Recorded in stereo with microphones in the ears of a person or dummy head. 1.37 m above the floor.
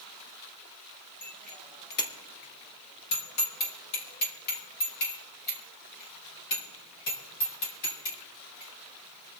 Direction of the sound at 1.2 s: 40° left (ahead or behind).